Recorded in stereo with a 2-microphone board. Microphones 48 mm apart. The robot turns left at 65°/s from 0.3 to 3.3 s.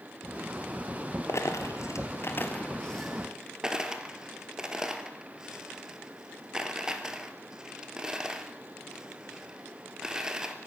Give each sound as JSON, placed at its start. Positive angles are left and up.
{"t": 1.3, "sound": "a dropped coin", "side_deg": 65, "distance_m": 1.7}